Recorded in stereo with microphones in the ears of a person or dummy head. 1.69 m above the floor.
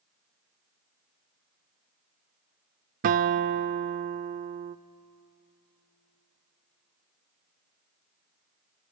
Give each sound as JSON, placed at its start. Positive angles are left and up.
{"t": 3.0, "sound": "a guitar", "side_deg": -45, "distance_m": 0.5}